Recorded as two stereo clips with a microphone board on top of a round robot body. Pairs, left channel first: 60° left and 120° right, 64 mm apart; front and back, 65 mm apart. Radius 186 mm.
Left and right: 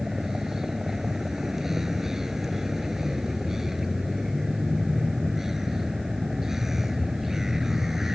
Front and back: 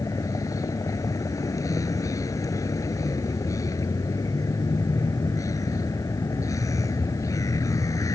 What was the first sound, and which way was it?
A vehicle, 35° right.